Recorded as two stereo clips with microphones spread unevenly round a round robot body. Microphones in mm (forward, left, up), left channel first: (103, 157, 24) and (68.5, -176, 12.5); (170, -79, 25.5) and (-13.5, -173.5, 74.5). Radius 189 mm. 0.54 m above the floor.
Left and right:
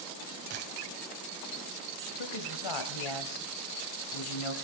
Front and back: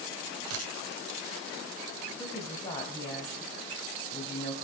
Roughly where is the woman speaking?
Left.